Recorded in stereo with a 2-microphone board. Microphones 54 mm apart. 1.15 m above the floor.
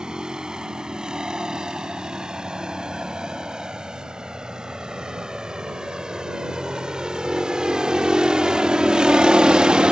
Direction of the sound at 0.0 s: 15° right (ahead or behind).